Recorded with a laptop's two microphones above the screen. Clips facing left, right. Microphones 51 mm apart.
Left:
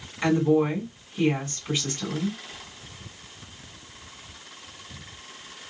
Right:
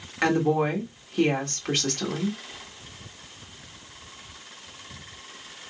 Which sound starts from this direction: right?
A woman speaking, at 0.2 s.